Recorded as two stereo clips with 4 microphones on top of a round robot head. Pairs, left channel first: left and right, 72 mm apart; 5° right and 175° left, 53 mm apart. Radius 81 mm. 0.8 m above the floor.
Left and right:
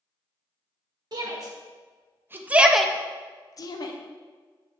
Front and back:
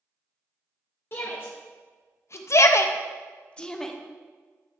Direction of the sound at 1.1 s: 55° right.